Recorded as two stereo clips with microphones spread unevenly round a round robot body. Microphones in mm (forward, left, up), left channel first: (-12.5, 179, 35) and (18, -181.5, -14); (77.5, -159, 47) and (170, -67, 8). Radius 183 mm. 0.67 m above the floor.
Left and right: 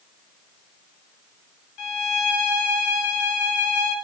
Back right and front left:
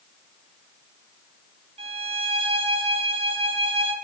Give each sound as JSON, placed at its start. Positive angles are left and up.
{"t": 1.8, "sound": "a violin", "azimuth_deg": 50, "distance_m": 1.5}